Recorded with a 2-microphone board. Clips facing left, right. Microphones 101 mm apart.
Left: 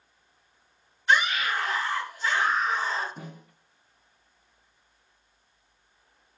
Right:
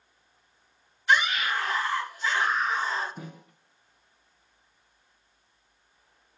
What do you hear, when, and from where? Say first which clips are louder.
1.1 s a scream: even; 30° left (ahead or behind), 2.5 m
3.2 s a snare drum: even; 35° left (ahead or behind), 2.5 m